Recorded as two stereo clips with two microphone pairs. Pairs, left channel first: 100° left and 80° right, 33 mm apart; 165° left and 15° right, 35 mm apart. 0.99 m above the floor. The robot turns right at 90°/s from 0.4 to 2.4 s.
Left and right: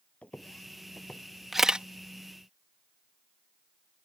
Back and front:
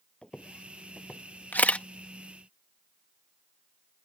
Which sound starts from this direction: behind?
A camera shutter, at 1.5 s.